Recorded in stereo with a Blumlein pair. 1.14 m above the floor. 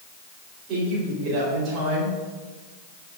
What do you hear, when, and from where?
0.7 s a woman speaking: 35° right, 4 m